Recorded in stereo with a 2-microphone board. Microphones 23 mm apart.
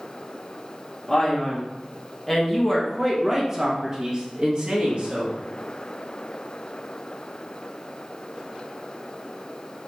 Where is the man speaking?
20° left (ahead or behind), 1.8 m; by 5.4 s 55° right (ahead or behind), 1.5 m.